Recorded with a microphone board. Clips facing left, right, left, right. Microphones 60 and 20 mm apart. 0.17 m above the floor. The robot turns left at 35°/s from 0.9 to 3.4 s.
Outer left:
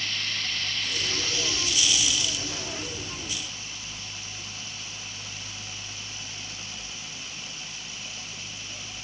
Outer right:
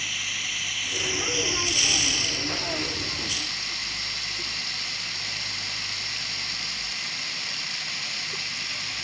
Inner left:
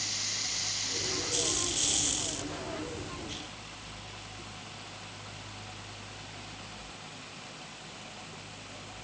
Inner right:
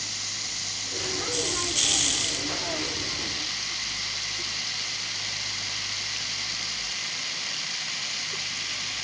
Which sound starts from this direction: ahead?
Running water, at 0.0 s.